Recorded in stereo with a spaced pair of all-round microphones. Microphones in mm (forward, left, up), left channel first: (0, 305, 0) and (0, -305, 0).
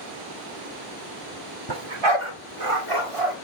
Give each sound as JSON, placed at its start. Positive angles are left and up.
{"t": 1.7, "sound": "a dog barking", "side_deg": -40, "distance_m": 1.6}